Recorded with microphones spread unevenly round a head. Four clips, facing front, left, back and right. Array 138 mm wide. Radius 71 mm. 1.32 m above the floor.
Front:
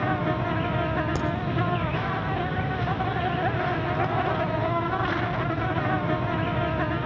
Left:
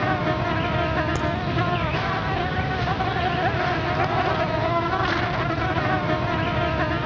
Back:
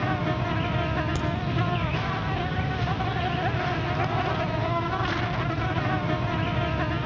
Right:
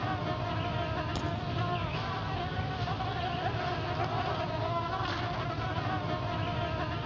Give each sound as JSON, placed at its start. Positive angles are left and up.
{"t": 0.0, "sound": "an insect", "azimuth_deg": 50, "distance_m": 0.8}
{"t": 1.1, "sound": "a crack", "azimuth_deg": 45, "distance_m": 3.0}